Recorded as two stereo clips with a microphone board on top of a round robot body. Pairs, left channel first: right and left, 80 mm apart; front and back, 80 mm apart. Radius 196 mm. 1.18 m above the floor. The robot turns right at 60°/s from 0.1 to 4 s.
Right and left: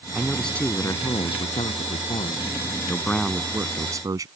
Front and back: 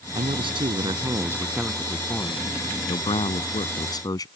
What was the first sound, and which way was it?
A man speaking, 170° left.